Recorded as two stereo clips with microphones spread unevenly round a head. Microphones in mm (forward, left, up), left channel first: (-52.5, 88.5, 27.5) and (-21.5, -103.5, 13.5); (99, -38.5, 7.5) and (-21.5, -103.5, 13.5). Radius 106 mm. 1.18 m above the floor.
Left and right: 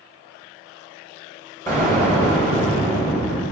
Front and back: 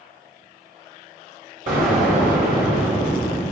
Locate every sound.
1.7 s an explosion: 175° left, 3 m